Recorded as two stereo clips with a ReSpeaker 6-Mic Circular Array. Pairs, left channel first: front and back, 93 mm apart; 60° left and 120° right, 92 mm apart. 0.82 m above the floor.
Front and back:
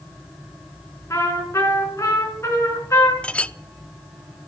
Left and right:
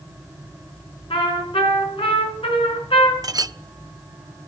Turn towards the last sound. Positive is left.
turn(degrees=-75)